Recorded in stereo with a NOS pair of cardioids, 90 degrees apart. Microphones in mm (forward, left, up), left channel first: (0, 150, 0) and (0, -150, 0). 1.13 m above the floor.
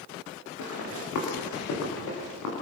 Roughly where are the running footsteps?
Ahead left.